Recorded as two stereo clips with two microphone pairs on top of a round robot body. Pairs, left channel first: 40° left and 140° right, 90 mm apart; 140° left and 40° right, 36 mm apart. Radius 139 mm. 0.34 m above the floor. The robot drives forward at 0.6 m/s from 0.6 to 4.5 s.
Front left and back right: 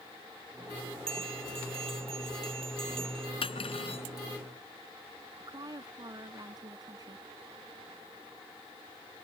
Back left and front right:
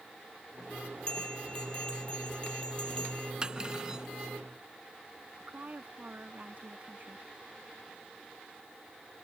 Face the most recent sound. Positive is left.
turn(degrees=-90)